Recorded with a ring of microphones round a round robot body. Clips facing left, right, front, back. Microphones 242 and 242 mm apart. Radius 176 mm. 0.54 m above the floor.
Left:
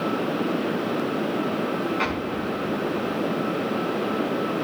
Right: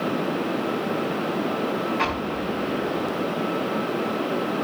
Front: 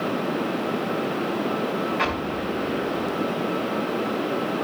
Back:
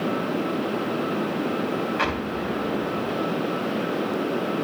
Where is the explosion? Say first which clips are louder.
Even, even; 150° right, 3.5 m.